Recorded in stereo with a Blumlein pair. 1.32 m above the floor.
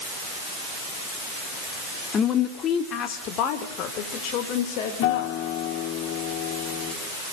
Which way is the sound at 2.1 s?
25° left.